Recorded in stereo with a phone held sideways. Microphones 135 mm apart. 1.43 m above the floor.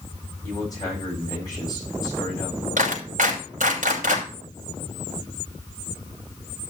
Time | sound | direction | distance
0.4 | a man speaking | 25° left (ahead or behind) | 9 m
2.8 | a clap | 75° right (ahead or behind) | 5.5 m